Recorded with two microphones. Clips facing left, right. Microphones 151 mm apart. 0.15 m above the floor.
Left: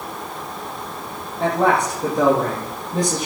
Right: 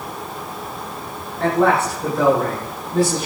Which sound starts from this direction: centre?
A man speaking, at 1.4 s.